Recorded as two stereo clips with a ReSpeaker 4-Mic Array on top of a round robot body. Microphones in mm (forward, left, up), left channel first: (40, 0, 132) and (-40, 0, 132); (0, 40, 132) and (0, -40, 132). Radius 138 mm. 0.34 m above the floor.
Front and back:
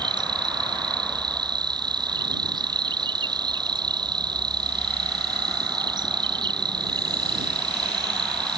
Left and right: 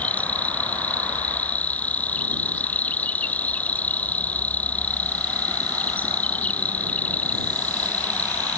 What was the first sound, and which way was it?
An insect, 160° left.